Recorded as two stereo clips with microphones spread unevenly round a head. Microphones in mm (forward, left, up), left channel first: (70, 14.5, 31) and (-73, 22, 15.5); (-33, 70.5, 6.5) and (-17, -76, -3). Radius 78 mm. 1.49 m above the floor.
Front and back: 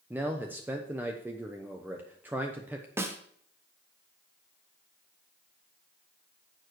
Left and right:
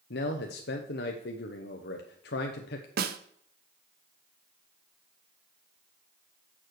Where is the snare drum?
105° right, 0.8 m.